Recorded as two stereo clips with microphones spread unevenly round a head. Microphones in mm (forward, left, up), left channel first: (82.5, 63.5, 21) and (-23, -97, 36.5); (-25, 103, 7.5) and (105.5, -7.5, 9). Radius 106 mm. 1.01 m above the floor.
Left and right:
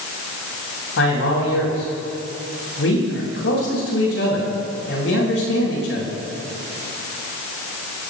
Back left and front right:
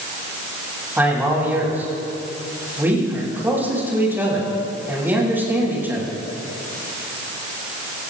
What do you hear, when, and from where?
1.0 s a man speaking: 40° left, 8.5 m